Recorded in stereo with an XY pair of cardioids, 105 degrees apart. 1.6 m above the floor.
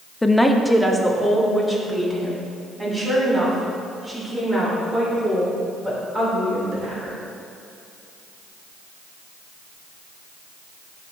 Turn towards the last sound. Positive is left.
turn(degrees=-25)